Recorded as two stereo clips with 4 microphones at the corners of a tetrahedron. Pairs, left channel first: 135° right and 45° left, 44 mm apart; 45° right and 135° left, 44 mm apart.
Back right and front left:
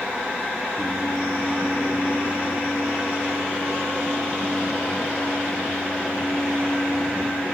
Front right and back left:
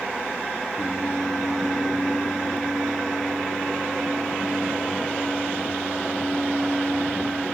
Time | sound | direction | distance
0.8 | singing | 175° left | 9.5 m